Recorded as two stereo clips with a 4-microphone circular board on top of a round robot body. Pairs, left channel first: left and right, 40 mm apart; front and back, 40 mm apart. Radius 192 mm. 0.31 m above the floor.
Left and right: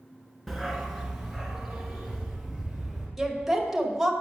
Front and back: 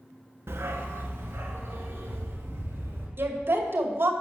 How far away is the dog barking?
About 1.8 m.